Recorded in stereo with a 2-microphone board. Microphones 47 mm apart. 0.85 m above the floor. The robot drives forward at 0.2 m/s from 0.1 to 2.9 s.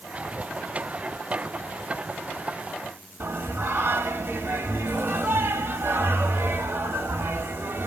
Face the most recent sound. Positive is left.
turn(degrees=-45)  # may be behind; listen again after turning